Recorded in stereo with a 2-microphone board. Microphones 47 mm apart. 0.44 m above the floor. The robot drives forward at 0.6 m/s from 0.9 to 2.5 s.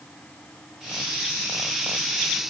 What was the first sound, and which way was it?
Only background noise.